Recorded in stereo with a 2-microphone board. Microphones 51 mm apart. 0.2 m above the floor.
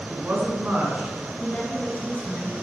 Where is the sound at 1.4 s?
30° left (ahead or behind), 2.0 m.